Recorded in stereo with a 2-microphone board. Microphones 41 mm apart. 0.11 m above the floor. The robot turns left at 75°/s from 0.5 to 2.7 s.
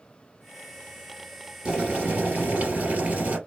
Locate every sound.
1.6 s boiling: 30° right, 2.0 m; by 3.4 s 110° right, 2.0 m